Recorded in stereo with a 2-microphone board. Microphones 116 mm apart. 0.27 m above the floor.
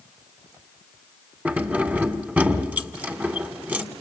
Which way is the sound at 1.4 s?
15° right (ahead or behind).